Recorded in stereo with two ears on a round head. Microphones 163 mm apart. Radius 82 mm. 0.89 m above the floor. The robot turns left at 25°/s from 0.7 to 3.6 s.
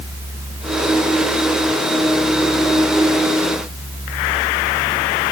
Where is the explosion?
I don't hear an explosion.